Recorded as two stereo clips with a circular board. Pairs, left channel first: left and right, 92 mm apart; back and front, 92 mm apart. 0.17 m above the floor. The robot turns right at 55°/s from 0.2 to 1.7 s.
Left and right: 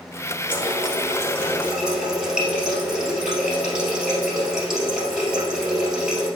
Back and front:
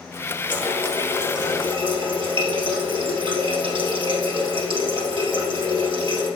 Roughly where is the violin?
No violin in this recording.